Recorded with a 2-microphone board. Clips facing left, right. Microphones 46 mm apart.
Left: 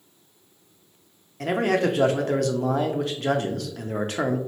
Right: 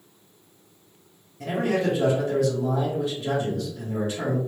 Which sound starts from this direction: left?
A man speaking, at 1.4 s.